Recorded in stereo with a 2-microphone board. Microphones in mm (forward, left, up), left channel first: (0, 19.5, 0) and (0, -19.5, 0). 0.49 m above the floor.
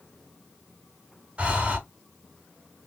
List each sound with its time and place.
1.4 s breathing: 35° right (ahead or behind), 0.9 m